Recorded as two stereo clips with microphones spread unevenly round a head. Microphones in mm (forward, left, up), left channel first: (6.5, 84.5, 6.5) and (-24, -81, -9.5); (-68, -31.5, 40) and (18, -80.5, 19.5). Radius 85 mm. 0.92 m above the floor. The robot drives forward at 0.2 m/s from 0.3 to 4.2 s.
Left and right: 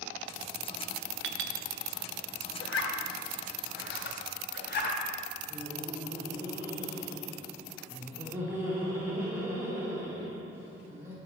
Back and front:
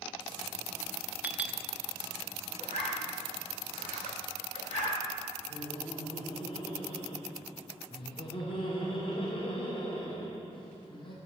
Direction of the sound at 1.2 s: 105° right.